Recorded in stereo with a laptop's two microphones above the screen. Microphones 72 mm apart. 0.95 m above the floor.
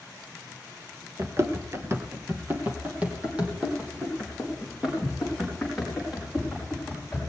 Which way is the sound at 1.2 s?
40° right (ahead or behind).